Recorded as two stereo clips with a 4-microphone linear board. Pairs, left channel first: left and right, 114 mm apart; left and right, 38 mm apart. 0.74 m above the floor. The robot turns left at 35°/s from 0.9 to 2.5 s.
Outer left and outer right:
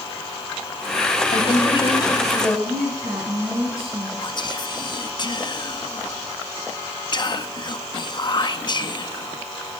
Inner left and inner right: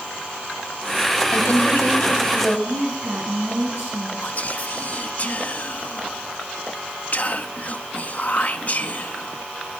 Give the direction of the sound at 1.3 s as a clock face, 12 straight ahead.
10 o'clock.